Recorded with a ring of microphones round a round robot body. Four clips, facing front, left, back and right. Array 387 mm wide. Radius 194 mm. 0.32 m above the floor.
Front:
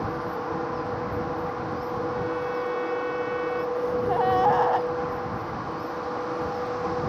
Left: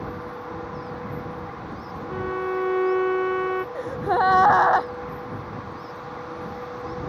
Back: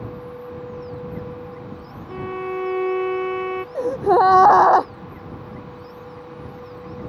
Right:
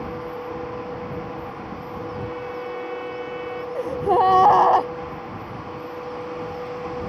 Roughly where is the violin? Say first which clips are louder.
Left 8 dB, even; behind left.